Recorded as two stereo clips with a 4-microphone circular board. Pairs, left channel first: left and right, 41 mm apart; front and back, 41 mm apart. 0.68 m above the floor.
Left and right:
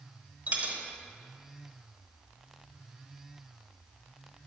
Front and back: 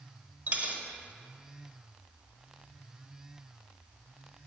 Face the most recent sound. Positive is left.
turn(degrees=-135)